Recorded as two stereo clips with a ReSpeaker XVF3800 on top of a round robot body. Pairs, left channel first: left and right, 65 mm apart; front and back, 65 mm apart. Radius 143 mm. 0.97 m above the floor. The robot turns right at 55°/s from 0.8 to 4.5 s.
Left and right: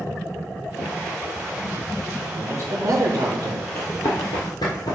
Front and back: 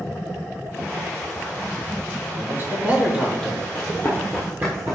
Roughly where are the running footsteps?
Ahead left.